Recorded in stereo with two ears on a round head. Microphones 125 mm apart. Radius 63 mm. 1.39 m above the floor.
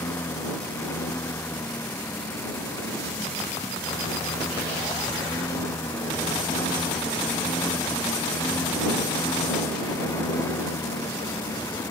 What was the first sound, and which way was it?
A lawn mower, 15° left (ahead or behind).